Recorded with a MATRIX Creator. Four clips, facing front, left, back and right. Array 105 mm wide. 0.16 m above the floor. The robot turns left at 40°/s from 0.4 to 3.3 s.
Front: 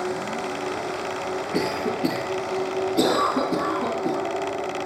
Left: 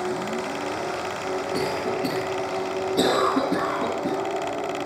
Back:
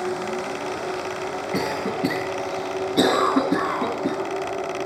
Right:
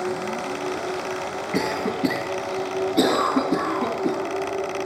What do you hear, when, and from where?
1.5 s a cough: 115° right, 3 m; by 4.2 s 175° left, 3 m